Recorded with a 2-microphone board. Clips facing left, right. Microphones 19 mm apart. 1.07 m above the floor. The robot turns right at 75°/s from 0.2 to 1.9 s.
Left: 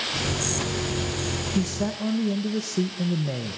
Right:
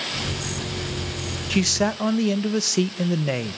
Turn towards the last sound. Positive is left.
turn(degrees=-50)  # may be behind; listen again after turning